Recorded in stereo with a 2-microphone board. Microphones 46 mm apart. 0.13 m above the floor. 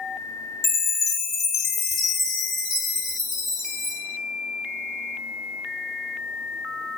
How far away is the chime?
About 1.9 m.